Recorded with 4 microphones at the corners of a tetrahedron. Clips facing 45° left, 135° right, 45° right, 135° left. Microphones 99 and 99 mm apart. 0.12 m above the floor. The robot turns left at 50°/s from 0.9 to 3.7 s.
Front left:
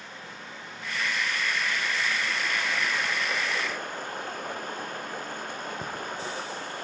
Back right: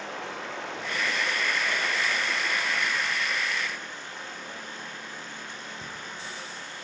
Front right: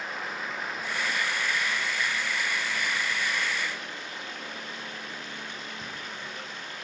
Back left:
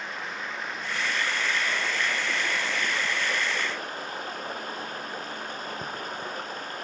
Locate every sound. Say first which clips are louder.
0.0 s running water: back right 7 dB, even; 130° right, 1.3 m; by 6.8 s 90° left, 1.3 m